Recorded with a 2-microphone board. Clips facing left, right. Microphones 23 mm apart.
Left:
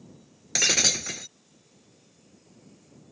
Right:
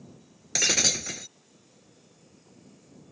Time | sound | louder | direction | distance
0.6 | breaking glass | left 1 dB | 10° left (ahead or behind) | ?